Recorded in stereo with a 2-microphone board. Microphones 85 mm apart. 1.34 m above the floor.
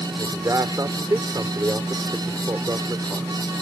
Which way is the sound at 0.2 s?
40° right (ahead or behind).